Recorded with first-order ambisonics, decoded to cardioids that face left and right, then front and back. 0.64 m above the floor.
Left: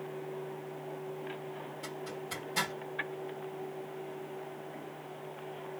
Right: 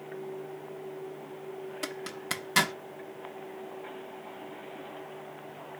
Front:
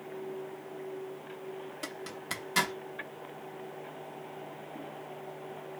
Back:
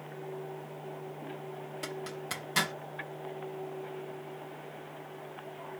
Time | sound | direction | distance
1.8 | a zipper | 90° right | 0.8 m